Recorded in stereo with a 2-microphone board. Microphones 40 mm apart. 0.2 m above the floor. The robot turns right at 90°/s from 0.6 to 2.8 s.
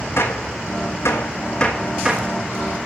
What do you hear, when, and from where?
0.2 s a gunshot: 65° left (ahead or behind), 1.7 m; by 2.4 s 45° right (ahead or behind), 1.7 m